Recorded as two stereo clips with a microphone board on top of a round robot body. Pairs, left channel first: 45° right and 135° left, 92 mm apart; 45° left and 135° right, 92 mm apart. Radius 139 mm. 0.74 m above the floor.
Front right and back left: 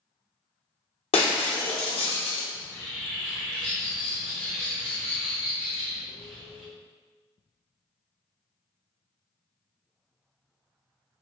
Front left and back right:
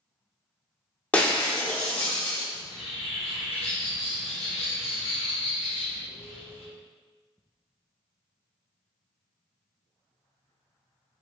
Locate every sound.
1.1 s breaking glass: 30° right, 0.9 m
2.5 s a bird: 30° left, 0.7 m